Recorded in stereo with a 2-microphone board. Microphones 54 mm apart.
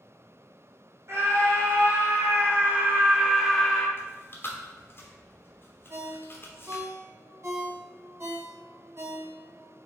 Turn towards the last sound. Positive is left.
turn(degrees=-50)  # may be behind; listen again after turning